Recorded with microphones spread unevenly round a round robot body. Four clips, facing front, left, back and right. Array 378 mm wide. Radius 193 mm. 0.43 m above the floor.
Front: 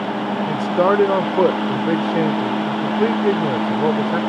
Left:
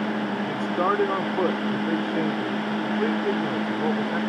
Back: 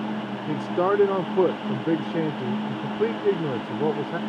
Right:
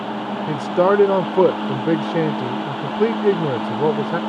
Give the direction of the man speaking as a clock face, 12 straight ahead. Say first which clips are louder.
Right 9 dB, front 5 dB; 3 o'clock.